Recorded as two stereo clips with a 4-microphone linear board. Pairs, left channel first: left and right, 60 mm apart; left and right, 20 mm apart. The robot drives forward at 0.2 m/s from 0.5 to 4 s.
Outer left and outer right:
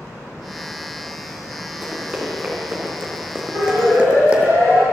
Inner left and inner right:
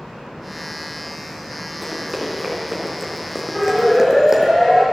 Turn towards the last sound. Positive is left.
turn(degrees=-60)  # may be behind; listen again after turning